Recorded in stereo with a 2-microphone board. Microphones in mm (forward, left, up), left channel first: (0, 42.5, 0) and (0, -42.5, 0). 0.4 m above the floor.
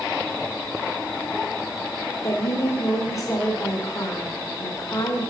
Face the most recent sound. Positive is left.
turn(degrees=35)  # may be behind; listen again after turning